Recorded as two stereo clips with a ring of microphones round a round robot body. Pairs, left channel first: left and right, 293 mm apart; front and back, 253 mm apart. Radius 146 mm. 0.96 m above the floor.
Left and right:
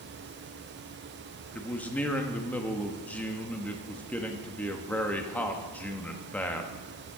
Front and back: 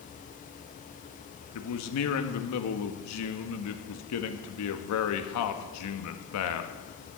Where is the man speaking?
5° left, 1.1 m.